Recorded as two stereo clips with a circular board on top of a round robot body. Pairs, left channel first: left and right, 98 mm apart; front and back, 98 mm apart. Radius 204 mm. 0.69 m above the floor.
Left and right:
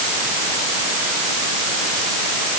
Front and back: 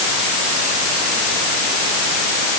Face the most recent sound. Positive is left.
No sound to turn to.